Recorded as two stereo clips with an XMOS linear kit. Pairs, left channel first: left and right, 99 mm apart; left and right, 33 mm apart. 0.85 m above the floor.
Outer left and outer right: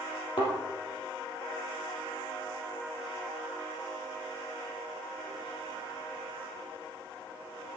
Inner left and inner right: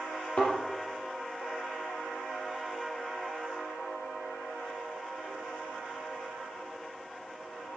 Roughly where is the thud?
Left.